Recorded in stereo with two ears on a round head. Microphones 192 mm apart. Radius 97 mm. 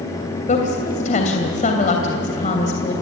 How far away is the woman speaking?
About 3 m.